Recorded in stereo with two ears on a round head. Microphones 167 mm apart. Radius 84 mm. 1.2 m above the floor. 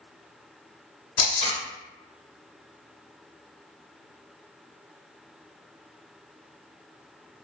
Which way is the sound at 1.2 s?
55° left (ahead or behind).